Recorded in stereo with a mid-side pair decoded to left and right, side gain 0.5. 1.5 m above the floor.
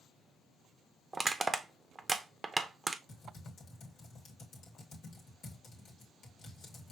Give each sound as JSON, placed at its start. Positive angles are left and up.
{"t": 1.1, "sound": "crushing", "azimuth_deg": -20, "distance_m": 0.7}
{"t": 3.1, "sound": "typing on a keyboard", "azimuth_deg": 65, "distance_m": 2.0}